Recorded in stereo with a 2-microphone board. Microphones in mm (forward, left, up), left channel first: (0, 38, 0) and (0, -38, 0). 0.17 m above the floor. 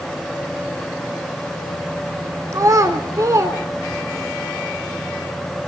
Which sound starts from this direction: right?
A child speaking, at 2.5 s.